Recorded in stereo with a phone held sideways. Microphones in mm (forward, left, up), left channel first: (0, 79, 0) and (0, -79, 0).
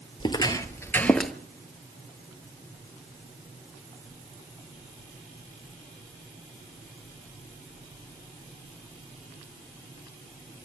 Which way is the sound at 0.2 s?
30° left (ahead or behind).